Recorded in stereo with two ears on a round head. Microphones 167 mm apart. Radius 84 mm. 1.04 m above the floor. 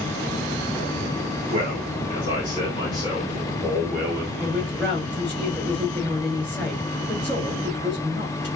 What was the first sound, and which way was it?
A man speaking, 40° left (ahead or behind).